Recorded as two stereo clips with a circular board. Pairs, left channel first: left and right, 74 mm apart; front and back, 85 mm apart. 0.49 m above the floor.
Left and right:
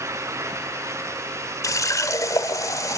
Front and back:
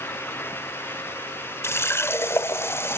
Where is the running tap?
55° left, 1.2 m.